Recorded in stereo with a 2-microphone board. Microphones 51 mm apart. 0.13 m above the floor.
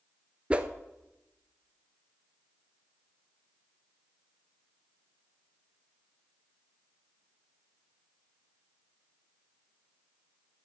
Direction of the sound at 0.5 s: 25° right (ahead or behind).